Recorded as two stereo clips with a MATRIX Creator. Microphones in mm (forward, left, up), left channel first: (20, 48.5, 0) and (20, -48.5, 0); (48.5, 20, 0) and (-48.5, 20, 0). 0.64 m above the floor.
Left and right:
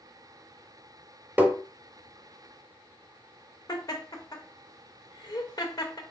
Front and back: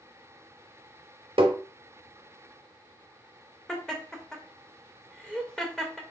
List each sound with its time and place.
1.4 s tapping: 160° right, 0.6 m
3.7 s laughter: 80° left, 0.7 m